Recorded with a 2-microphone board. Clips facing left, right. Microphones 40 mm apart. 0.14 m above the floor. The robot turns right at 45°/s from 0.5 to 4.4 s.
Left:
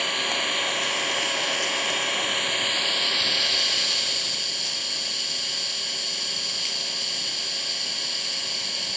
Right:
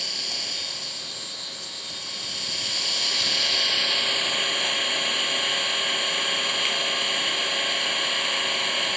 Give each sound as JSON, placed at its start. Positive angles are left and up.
{"t": 0.0, "sound": "an engine running", "azimuth_deg": 50, "distance_m": 0.8}